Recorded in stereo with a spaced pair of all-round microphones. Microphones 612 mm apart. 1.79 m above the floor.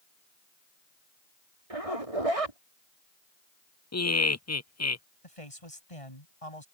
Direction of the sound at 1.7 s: 65° right (ahead or behind).